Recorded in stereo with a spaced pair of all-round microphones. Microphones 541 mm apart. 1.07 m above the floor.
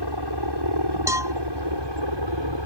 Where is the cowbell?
5° right (ahead or behind).